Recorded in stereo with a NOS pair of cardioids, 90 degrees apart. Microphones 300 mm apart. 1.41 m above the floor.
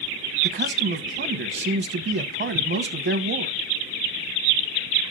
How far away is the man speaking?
About 1.3 m.